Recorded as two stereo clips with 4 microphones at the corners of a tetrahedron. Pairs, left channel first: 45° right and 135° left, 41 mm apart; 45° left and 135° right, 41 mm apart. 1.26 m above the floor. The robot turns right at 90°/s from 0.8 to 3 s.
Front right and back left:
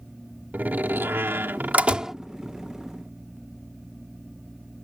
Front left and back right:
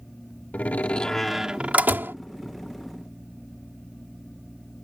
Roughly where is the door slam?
Left.